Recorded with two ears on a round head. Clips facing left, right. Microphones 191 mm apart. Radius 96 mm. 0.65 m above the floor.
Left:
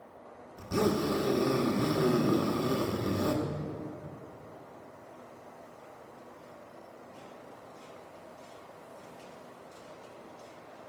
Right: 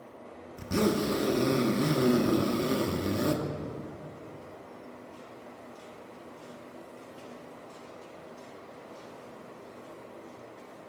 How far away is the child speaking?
I don't hear a child speaking.